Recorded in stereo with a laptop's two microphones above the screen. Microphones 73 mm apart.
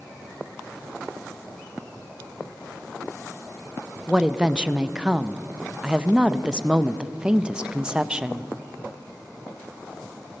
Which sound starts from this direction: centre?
A woman speaking, at 4.1 s.